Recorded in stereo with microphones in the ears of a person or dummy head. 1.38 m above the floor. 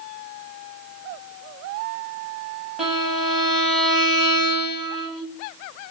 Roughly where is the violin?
Centre.